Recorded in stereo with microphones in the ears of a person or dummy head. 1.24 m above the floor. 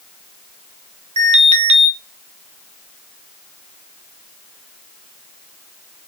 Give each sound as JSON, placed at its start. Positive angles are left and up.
{"t": 1.2, "sound": "an alarm", "side_deg": -35, "distance_m": 0.6}